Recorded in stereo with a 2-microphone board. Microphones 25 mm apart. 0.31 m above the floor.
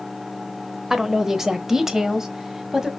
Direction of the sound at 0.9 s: 15° right (ahead or behind).